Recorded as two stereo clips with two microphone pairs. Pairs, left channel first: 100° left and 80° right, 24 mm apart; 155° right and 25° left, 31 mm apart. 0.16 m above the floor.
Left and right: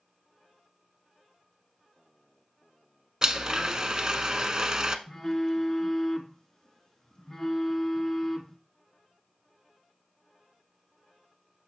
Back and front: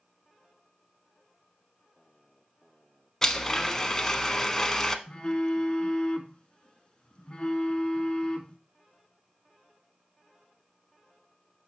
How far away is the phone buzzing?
About 1.2 m.